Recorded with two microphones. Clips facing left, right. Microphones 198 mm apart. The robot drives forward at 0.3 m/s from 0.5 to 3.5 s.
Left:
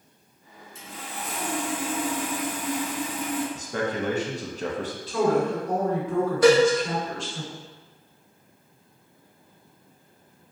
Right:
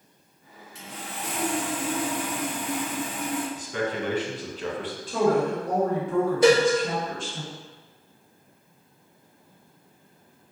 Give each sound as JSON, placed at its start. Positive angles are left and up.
{"t": 0.8, "sound": "sawing", "side_deg": -70, "distance_m": 0.7}
{"t": 3.5, "sound": "a man speaking", "side_deg": 45, "distance_m": 0.5}
{"t": 5.1, "sound": "a woman speaking", "side_deg": -50, "distance_m": 1.6}
{"t": 6.4, "sound": "a cowbell", "side_deg": -25, "distance_m": 1.4}